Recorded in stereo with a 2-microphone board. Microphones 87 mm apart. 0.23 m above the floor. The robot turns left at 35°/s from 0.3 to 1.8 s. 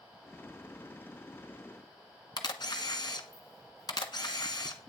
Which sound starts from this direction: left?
A camera shutter, at 2.4 s.